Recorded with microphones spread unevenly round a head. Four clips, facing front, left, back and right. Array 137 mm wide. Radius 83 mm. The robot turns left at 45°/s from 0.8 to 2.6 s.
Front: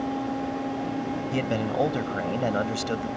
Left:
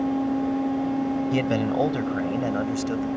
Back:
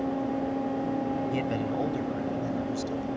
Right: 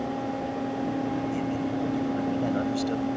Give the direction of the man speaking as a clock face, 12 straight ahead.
10 o'clock.